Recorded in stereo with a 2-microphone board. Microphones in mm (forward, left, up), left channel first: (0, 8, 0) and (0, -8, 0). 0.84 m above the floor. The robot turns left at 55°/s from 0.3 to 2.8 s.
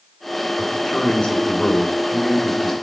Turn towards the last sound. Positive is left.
turn(degrees=-5)